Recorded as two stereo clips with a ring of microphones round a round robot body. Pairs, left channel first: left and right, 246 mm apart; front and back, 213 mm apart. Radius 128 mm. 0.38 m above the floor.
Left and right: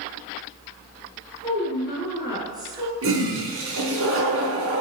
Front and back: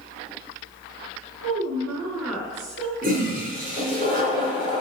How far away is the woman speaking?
About 4.5 m.